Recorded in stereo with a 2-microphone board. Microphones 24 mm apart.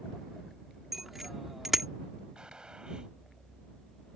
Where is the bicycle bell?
10° right (ahead or behind).